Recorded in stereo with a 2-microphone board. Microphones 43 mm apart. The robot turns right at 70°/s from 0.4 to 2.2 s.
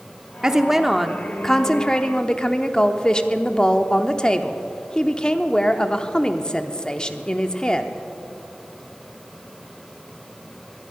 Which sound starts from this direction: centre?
A woman speaking, at 0.4 s.